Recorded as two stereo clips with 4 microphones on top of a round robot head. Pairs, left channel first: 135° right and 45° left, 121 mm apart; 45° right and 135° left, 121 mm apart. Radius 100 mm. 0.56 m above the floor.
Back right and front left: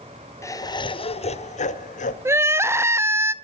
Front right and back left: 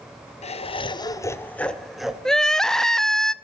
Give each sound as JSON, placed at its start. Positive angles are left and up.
{"t": 0.4, "sound": "laughter", "azimuth_deg": -70, "distance_m": 2.0}
{"t": 2.2, "sound": "crying", "azimuth_deg": 35, "distance_m": 1.0}